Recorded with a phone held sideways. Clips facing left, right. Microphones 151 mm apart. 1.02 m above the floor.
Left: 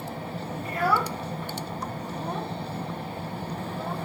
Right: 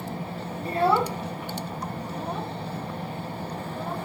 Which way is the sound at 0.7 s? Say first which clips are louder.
Right 4 dB; 35° right (ahead or behind).